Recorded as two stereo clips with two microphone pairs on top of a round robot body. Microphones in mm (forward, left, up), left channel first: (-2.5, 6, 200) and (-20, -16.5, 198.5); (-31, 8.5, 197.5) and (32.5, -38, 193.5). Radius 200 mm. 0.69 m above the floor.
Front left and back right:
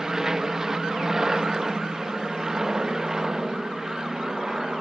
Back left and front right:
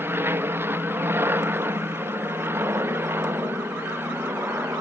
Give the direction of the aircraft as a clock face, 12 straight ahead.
2 o'clock.